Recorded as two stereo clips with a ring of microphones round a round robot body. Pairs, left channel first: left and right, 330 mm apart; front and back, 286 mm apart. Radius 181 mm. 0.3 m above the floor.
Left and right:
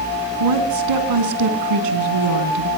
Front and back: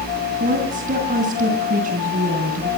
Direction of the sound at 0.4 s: 115° right.